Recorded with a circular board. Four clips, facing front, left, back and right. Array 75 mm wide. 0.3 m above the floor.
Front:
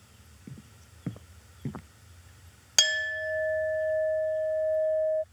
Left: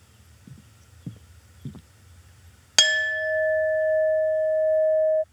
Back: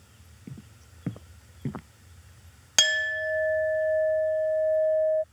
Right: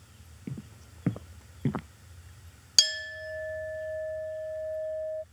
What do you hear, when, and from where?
0.5 s footsteps: 100° right
2.8 s a clink: 105° left